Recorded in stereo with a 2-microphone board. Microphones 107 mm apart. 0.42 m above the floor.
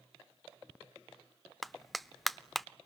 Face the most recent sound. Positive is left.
turn(degrees=0)  # may be behind; listen again after turning